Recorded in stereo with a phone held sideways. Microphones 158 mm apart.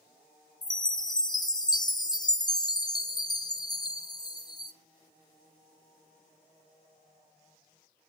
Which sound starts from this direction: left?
A chime, at 0.6 s.